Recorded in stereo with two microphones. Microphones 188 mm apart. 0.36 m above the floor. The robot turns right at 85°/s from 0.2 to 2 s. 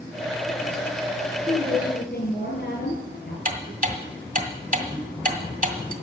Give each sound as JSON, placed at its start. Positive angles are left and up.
{"t": 1.5, "sound": "a woman speaking", "azimuth_deg": 20, "distance_m": 6.5}
{"t": 3.5, "sound": "ticking", "side_deg": -45, "distance_m": 1.6}